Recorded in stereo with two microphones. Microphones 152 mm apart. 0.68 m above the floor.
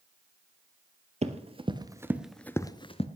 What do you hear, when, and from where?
1.2 s running footsteps: 45° right (ahead or behind), 1.1 m; by 3.1 s 40° left (ahead or behind), 0.8 m